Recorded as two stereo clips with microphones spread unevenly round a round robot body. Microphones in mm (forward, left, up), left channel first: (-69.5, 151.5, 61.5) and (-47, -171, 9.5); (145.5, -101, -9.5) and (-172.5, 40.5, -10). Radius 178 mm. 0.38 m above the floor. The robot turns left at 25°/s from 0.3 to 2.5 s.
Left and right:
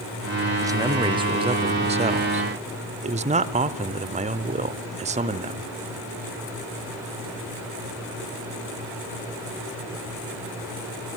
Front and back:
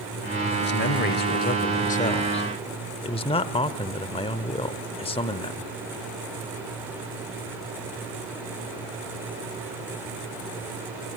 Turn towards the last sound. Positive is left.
turn(degrees=-80)